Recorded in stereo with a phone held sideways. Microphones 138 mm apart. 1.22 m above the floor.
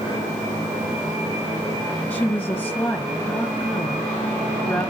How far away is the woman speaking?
About 1.4 m.